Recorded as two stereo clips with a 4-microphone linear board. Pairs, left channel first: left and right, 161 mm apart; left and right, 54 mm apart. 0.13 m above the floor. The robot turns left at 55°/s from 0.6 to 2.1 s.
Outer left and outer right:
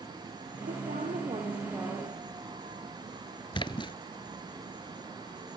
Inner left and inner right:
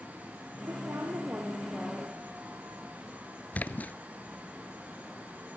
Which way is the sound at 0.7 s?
105° right.